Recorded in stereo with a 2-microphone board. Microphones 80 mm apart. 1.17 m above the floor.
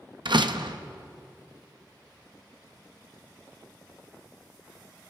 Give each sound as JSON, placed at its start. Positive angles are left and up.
{"t": 0.2, "sound": "a door slam", "side_deg": -70, "distance_m": 0.9}